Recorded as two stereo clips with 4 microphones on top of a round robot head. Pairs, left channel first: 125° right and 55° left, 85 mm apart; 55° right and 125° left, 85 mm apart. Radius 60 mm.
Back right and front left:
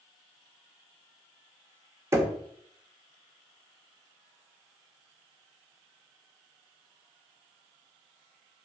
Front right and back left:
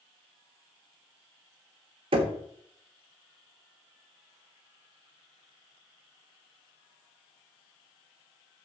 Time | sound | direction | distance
2.1 | knocking | 115° left | 1.0 m